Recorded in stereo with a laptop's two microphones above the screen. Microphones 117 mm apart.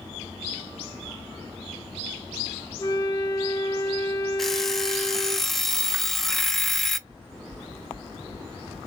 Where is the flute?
30° left (ahead or behind), 0.9 m.